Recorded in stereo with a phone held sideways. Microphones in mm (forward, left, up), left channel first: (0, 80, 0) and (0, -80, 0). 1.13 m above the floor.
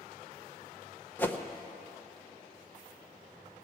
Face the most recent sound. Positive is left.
turn(degrees=10)  # may be behind; listen again after turning